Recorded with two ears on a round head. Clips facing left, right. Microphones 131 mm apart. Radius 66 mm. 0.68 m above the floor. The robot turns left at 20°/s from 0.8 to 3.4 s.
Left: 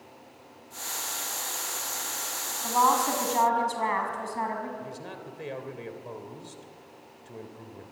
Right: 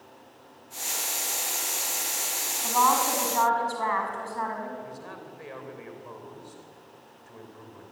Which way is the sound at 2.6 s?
5° left (ahead or behind).